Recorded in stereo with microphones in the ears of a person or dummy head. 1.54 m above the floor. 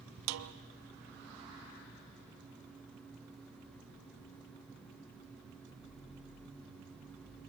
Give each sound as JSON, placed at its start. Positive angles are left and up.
{"t": 0.3, "sound": "a snare drum", "side_deg": -85, "distance_m": 1.0}